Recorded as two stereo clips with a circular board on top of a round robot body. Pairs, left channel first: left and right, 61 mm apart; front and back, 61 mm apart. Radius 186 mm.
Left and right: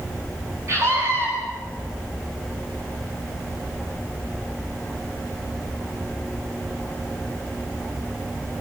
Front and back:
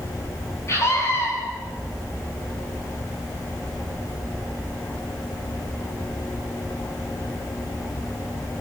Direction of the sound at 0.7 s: 45° right.